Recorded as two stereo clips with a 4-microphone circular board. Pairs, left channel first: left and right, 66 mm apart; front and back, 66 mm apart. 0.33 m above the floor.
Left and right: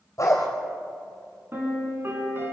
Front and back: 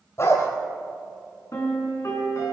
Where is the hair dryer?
No hair dryer in this recording.